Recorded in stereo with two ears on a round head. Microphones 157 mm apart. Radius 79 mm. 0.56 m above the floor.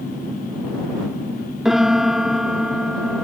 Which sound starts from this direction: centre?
A piano, at 1.6 s.